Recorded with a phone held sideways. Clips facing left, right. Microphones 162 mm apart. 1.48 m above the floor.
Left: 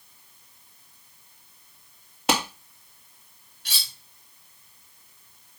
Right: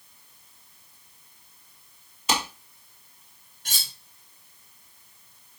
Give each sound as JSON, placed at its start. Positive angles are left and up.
{"t": 2.3, "sound": "a clap", "side_deg": 65, "distance_m": 2.5}
{"t": 3.6, "sound": "cutlery clinking", "side_deg": -45, "distance_m": 1.0}